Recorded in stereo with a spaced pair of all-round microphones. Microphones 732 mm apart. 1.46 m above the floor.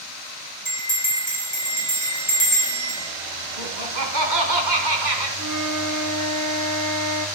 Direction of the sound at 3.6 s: 70° right (ahead or behind).